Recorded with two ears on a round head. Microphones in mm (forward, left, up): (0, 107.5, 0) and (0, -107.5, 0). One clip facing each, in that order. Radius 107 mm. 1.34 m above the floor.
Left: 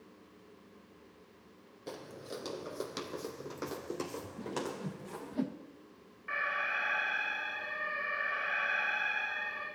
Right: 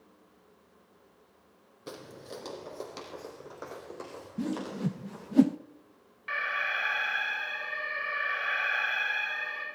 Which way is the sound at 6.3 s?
55° right (ahead or behind).